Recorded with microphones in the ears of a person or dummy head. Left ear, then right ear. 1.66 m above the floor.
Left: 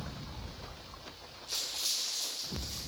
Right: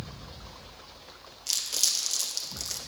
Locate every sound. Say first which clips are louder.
1.5 s crumpling: right 7 dB; 60° right (ahead or behind), 0.7 m